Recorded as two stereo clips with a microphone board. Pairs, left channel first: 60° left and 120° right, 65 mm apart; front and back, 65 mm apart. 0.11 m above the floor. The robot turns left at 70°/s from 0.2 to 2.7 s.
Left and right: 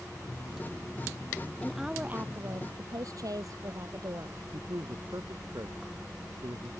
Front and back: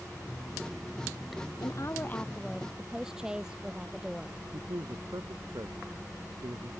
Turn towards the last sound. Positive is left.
turn(degrees=-155)